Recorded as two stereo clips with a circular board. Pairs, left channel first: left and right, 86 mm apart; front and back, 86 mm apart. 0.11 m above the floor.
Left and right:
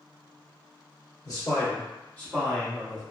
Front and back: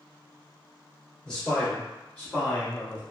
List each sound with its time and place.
1.2 s a man speaking: 75° left, 2.0 m; by 3.0 s 30° right, 1.5 m